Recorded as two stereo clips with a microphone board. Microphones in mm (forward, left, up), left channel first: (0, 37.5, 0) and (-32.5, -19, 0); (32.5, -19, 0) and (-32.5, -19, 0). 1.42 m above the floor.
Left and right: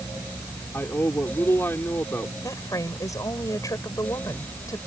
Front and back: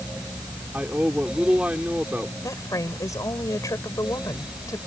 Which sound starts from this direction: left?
A man speaking, at 0.7 s.